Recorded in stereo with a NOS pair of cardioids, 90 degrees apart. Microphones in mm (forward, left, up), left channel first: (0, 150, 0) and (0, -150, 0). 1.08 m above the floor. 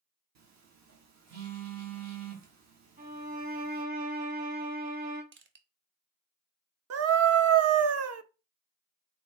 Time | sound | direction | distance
0.3 | a phone buzzing | 65° right | 1.5 m
3.0 | a violin | 30° right | 1.8 m
5.3 | crushing | 40° right | 0.9 m
6.9 | a scream | 55° right | 0.9 m